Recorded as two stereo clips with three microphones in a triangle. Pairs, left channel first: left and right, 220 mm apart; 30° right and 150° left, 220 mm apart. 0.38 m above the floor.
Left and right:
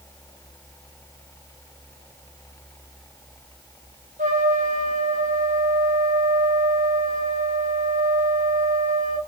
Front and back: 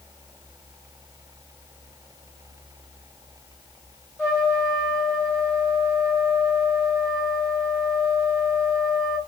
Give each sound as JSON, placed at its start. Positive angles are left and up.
{"t": 4.2, "sound": "a trumpet", "azimuth_deg": -125, "distance_m": 1.6}